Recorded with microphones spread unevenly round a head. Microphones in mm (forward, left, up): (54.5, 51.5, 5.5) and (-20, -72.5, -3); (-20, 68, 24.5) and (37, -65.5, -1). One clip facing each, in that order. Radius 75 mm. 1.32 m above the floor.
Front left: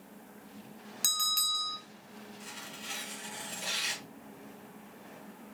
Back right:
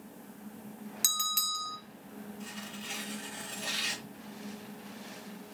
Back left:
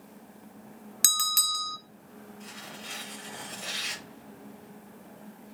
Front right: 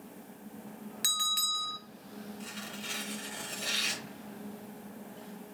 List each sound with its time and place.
1.0 s a bell: 155° left, 0.7 m
2.4 s tearing paper: 15° right, 2.5 m